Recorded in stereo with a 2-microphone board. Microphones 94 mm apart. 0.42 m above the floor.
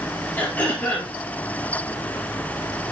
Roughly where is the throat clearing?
Centre.